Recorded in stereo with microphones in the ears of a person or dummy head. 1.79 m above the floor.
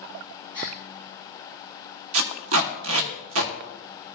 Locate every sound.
0.5 s a gasp: 15° right (ahead or behind), 2 m
2.1 s tape being pulled: 75° right (ahead or behind), 1.2 m